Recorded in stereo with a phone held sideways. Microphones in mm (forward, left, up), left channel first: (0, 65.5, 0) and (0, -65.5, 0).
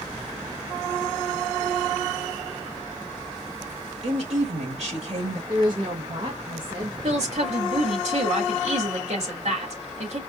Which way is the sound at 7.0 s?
55° right (ahead or behind).